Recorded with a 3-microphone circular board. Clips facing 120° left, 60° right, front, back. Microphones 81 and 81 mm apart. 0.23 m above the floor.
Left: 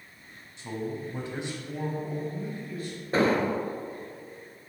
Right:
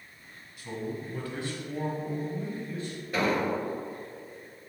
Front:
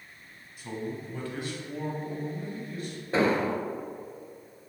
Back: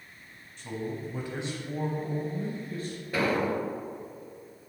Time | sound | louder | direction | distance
0.6 | a man speaking | left 2 dB, back 1 dB | 75° left | 1.3 m
3.1 | an explosion | left 3 dB, front 2 dB | 60° left | 0.6 m